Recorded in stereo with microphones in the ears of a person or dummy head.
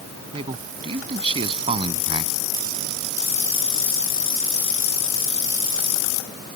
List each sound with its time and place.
0.3 s a man speaking: 25° right (ahead or behind)